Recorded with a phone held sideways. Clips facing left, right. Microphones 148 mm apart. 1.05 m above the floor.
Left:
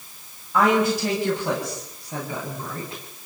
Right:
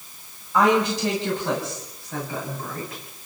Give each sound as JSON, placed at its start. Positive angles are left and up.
{"t": 0.5, "sound": "a woman speaking", "side_deg": 5, "distance_m": 6.5}